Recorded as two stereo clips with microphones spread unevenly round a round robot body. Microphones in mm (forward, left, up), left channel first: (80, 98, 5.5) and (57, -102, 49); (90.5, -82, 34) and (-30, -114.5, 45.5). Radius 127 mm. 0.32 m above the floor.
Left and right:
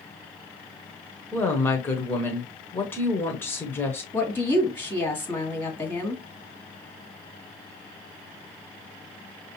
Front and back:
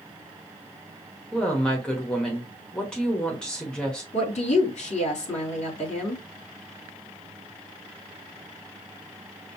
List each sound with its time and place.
1.3 s a woman speaking: 75° left, 1.1 m
4.1 s a woman speaking: 10° left, 2.5 m